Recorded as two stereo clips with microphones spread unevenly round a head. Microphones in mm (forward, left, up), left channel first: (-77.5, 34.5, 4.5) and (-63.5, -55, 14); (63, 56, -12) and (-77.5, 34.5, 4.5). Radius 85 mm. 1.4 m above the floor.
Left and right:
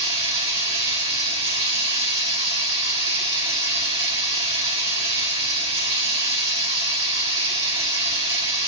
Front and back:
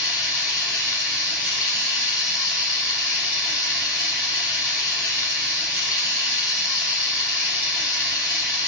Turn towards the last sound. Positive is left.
turn(degrees=-80)